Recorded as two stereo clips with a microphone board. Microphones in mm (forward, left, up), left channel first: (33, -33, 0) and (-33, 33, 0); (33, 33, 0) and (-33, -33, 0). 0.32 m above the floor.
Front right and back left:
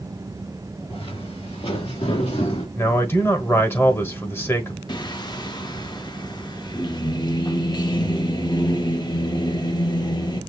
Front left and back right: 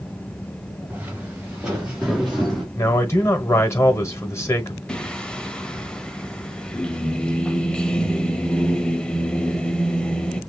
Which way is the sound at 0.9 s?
60° right.